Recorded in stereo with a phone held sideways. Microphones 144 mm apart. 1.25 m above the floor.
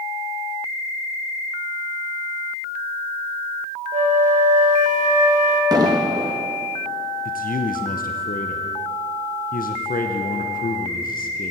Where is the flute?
60° right (ahead or behind), 1.3 m.